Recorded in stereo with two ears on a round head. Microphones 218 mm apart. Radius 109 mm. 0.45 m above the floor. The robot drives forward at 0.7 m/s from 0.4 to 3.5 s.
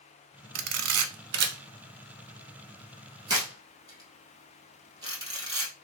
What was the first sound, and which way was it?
A camera shutter, 70° right (ahead or behind).